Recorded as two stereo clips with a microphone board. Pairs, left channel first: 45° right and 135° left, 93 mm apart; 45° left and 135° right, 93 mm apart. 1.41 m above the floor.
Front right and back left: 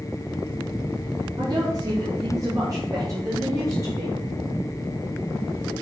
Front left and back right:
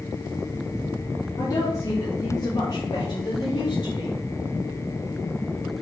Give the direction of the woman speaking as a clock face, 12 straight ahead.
9 o'clock.